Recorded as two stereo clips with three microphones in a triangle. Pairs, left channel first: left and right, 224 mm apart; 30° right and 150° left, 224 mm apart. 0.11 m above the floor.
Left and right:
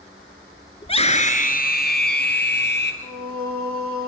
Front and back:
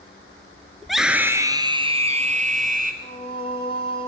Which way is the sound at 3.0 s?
95° right.